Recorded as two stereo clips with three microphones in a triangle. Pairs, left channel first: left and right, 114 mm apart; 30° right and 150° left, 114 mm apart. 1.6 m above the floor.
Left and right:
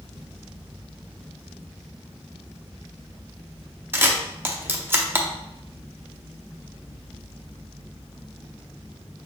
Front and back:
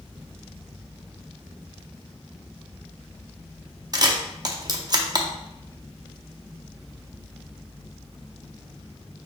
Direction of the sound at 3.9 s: 160° right.